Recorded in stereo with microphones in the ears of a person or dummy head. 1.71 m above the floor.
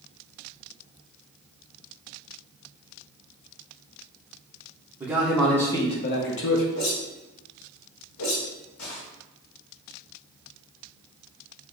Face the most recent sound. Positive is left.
turn(degrees=85)